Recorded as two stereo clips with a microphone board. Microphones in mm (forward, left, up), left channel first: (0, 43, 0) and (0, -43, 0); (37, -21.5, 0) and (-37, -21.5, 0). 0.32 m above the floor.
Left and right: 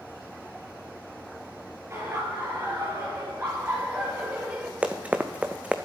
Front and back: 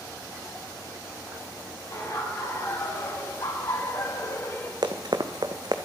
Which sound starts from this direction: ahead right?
Laughter, at 1.9 s.